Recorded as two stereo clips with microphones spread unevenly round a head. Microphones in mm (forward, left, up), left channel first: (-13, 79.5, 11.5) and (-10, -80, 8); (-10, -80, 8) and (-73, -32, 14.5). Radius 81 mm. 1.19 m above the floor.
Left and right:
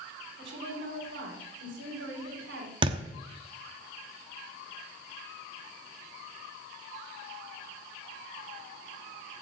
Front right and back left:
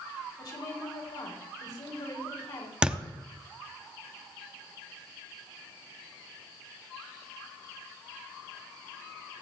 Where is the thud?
145° right, 0.9 m.